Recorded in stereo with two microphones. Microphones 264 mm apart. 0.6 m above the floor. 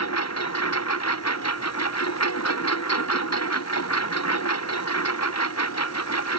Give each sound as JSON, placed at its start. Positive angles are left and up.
{"t": 0.0, "sound": "a lawn mower", "side_deg": 80}